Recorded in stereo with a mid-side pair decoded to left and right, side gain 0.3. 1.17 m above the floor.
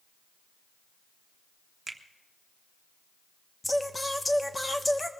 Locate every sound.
1.9 s a finger snap: 30° right, 1.5 m
3.6 s singing: 20° left, 1.2 m